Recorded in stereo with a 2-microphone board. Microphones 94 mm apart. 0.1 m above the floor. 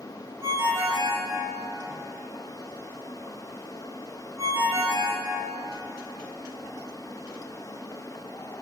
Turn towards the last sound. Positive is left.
turn(degrees=-30)  # may be behind; listen again after turning